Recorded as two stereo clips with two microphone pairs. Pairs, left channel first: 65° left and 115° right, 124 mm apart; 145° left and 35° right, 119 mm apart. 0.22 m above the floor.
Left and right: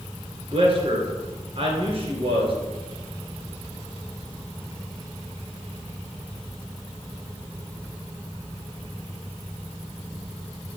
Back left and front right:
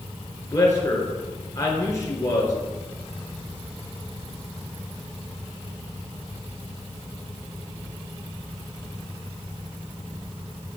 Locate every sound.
0.5 s a man speaking: 155° right, 3 m